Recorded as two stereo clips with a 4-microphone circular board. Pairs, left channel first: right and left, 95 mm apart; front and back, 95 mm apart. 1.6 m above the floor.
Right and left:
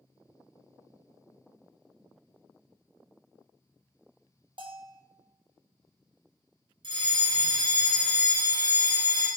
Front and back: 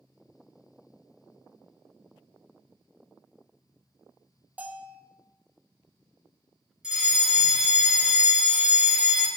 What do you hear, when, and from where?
4.6 s a bell: 110° left, 0.8 m
6.8 s a fire alarm: 100° left, 2 m